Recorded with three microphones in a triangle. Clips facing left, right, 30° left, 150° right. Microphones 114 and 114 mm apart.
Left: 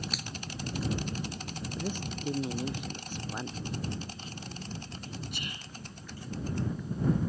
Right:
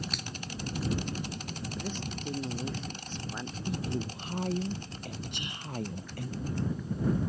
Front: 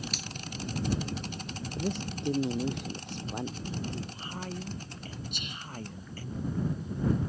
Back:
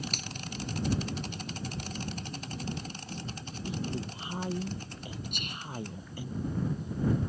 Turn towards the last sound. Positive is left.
turn(degrees=-150)